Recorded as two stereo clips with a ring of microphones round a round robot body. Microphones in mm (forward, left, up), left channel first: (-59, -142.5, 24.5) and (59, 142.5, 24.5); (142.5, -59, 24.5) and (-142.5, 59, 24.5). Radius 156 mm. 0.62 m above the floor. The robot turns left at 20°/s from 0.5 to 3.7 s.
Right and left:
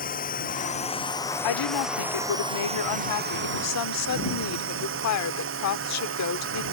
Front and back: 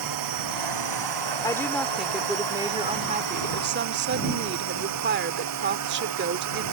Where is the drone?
175° right; by 6.7 s 120° left.